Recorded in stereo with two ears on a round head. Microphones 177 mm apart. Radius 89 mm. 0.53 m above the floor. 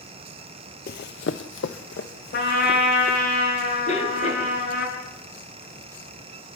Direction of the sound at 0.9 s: 45° left (ahead or behind).